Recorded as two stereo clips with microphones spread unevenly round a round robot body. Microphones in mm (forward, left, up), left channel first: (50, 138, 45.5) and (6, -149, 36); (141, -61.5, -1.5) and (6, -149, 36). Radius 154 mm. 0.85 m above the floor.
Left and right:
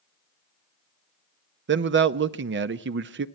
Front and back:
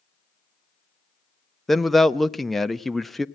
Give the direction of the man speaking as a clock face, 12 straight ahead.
2 o'clock.